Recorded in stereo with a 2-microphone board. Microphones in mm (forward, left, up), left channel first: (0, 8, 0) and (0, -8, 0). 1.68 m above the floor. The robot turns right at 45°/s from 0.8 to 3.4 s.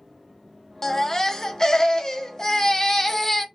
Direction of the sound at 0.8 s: 40° left.